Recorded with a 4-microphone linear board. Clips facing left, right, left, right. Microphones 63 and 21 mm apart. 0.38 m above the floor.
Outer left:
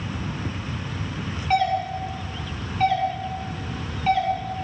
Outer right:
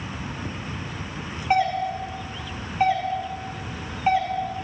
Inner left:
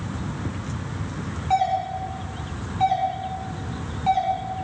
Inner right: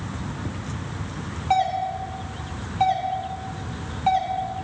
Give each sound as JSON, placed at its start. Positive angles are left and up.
{"t": 1.5, "sound": "a doorbell", "side_deg": -15, "distance_m": 1.2}